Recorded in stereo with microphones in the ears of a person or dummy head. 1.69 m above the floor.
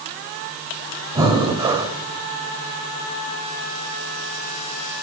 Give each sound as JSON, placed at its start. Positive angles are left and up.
{"t": 1.1, "sound": "breathing", "side_deg": -15, "distance_m": 0.6}